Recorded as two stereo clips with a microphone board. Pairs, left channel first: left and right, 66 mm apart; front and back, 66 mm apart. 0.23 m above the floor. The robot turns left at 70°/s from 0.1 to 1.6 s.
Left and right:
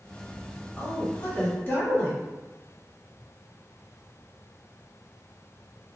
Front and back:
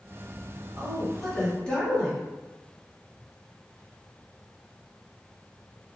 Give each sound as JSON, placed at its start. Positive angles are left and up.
{"t": 0.8, "sound": "a woman speaking", "azimuth_deg": 125, "distance_m": 1.3}